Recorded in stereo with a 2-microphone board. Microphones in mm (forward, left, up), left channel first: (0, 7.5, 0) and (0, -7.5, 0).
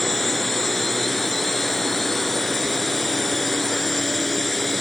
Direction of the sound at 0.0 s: 15° left (ahead or behind).